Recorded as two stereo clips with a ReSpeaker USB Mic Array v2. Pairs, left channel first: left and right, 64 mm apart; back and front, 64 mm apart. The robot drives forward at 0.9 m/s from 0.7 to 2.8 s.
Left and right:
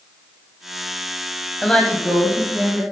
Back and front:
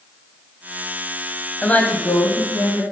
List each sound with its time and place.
1.6 s a woman speaking: 150° left, 1.0 m; by 2.8 s 170° left, 1.7 m